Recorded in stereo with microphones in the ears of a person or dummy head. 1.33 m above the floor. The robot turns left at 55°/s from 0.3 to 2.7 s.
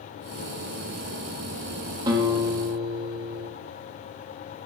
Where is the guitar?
20° right, 2.5 m; by 3.5 s 55° right, 2.5 m.